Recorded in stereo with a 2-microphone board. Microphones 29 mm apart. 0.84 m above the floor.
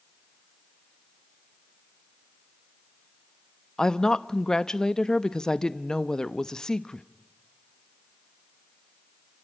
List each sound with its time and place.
3.8 s a woman speaking: 20° left (ahead or behind), 0.7 m